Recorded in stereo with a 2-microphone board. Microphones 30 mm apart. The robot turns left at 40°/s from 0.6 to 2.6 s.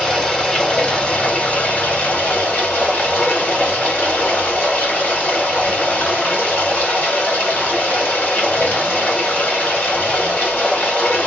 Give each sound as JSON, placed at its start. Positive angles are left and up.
{"t": 0.0, "sound": "running water", "azimuth_deg": 160, "distance_m": 2.0}